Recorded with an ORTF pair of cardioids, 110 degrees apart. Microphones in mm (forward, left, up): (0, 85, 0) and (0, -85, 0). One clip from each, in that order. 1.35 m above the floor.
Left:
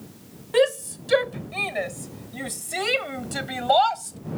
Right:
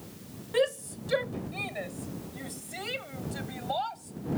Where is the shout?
40° left; by 4.2 s 75° left.